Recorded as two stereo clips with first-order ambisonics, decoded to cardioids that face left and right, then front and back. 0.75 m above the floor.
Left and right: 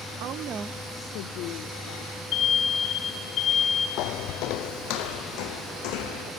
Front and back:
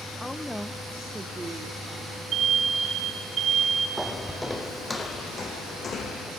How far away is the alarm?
About 2.5 m.